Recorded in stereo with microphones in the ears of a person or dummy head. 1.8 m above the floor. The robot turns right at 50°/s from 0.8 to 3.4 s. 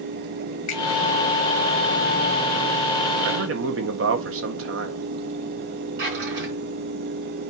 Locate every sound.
0.7 s a finger snap: 40° left (ahead or behind), 2 m; by 0.8 s 35° left (ahead or behind), 2 m
3.2 s a man speaking: 80° right, 1.7 m
6.0 s a drawer: 70° right (ahead or behind), 4.5 m